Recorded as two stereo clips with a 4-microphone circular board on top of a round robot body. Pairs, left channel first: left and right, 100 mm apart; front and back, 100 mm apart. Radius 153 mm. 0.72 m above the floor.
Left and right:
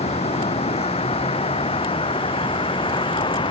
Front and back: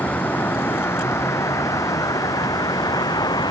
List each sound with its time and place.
0.0 s a vehicle: 75° left; by 3.5 s 50° left